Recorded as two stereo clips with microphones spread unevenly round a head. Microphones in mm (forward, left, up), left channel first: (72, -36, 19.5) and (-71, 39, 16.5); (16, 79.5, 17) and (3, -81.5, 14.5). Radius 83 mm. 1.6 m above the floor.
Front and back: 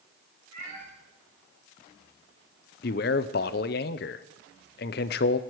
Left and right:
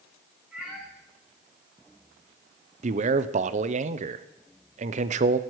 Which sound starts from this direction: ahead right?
A man speaking, at 2.8 s.